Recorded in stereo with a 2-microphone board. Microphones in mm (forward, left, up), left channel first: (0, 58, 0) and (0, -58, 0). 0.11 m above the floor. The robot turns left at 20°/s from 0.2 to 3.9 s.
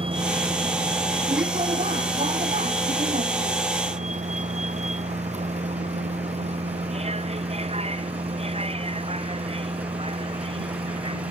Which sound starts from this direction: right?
A vehicle, at 0.0 s.